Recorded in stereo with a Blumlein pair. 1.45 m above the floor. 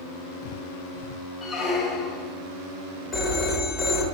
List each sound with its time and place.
1.4 s a squeak: 20° left, 1.3 m
3.1 s a phone ringing: 25° left, 1.5 m